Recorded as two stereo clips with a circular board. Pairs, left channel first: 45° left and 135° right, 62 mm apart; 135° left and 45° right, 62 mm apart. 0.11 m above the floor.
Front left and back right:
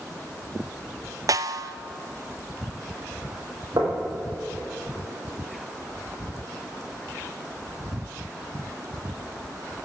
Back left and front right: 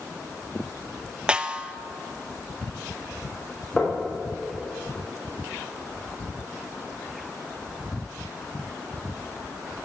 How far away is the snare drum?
About 0.5 m.